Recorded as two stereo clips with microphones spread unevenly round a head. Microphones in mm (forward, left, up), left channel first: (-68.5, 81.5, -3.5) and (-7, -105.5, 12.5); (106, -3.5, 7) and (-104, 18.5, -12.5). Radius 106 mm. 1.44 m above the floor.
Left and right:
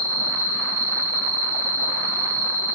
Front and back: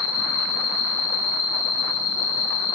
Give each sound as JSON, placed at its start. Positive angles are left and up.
{"t": 0.0, "sound": "an insect", "azimuth_deg": 0, "distance_m": 5.5}